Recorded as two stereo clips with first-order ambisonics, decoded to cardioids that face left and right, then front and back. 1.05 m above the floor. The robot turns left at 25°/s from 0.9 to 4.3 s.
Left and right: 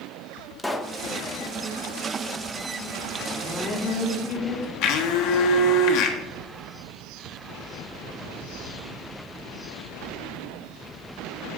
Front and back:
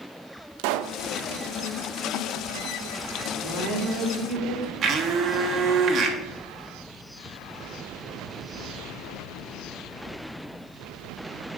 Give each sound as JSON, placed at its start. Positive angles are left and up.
{"t": 0.6, "sound": "a pop", "azimuth_deg": 175, "distance_m": 0.5}
{"t": 3.4, "sound": "a woman speaking", "azimuth_deg": 155, "distance_m": 2.0}
{"t": 4.8, "sound": "a blender", "azimuth_deg": 120, "distance_m": 1.2}